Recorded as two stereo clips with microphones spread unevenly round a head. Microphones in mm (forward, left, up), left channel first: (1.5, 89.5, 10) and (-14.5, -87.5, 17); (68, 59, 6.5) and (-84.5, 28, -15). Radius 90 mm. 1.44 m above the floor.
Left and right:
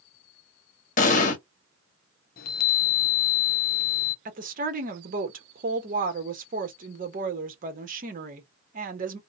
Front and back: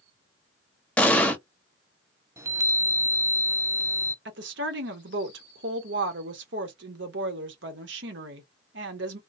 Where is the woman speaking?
140° right, 1.1 m.